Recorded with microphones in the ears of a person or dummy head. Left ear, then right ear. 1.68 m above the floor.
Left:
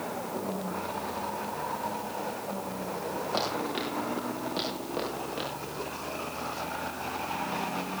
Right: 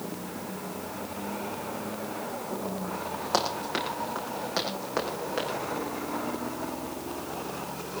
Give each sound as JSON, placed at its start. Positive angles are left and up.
{"t": 3.3, "sound": "running footsteps", "side_deg": -60, "distance_m": 7.0}